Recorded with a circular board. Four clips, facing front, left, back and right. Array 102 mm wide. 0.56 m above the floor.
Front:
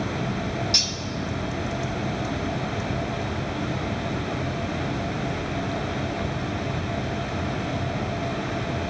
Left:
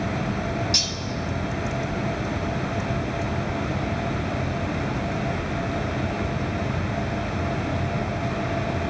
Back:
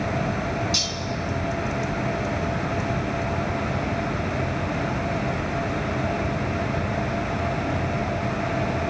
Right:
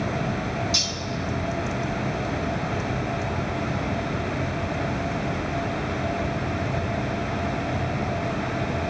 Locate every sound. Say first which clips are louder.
0.7 s cutlery clinking: even, back 2 dB; 40° left, 0.9 m